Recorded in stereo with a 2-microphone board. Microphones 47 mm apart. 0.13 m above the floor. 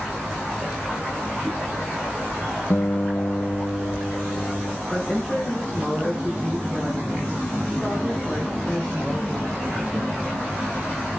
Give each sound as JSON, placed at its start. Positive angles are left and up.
{"t": 2.7, "sound": "a guitar", "side_deg": 50, "distance_m": 0.8}
{"t": 4.9, "sound": "a woman speaking", "side_deg": 20, "distance_m": 6.0}